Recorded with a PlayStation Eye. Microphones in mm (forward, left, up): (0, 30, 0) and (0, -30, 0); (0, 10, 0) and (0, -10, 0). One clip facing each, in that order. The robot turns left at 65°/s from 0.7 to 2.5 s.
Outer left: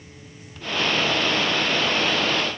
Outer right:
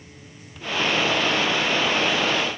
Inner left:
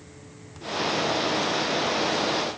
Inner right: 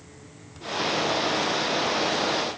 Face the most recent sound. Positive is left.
No sound to turn to.